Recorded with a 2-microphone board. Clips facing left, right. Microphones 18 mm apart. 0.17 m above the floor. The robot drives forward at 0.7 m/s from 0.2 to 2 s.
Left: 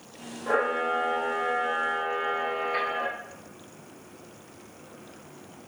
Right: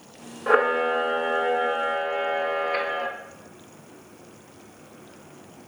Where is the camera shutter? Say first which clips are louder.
Right 5 dB; 45° right (ahead or behind), 0.5 m; by 3.1 s 20° right (ahead or behind), 1.1 m.